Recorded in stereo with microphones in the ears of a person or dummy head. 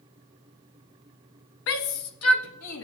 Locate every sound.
1.7 s a shout: 65° left (ahead or behind), 0.9 m; by 2.8 s 80° left, 2 m